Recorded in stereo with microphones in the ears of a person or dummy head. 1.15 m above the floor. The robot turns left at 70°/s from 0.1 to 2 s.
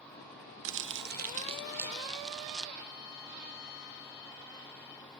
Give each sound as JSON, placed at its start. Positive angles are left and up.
{"t": 0.7, "sound": "crumpling", "azimuth_deg": -90}
{"t": 2.8, "sound": "a violin", "side_deg": 65}